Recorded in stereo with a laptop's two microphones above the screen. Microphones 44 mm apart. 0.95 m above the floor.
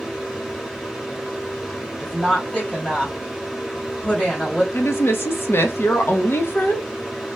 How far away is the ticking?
No ticking in this recording.